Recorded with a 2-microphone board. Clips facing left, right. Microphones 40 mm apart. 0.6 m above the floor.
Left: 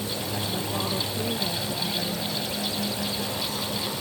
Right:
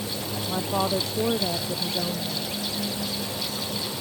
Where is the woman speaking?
70° right (ahead or behind).